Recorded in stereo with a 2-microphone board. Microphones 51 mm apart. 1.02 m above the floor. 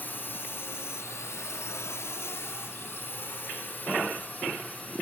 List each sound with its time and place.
0.0 s a drone: 45° left (ahead or behind); by 5.0 s 30° left (ahead or behind)